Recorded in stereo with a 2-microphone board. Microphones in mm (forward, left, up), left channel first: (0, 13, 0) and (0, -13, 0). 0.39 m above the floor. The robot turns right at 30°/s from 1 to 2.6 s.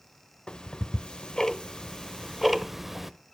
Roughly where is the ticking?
Left.